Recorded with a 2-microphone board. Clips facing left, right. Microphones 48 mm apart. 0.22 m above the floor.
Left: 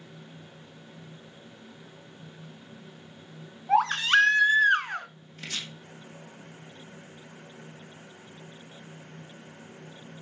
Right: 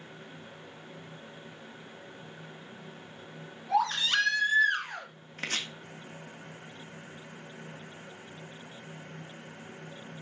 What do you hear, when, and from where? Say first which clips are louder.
3.7 s a baby crying: left 5 dB; 45° left (ahead or behind), 1.8 m
5.4 s chopping: right 3 dB; 50° right (ahead or behind), 1.6 m